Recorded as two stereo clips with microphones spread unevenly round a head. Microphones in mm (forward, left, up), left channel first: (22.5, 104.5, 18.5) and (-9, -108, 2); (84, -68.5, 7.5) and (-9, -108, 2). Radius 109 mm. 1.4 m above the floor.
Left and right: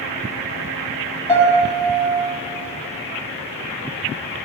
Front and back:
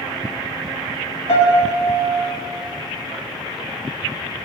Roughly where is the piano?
Ahead.